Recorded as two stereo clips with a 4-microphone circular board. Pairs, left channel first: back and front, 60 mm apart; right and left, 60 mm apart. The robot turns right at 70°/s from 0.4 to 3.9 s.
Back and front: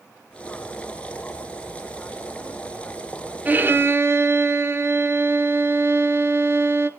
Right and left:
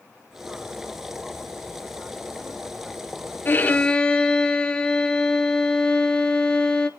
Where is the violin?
50° right, 0.9 m; by 6.9 s 20° right, 0.9 m.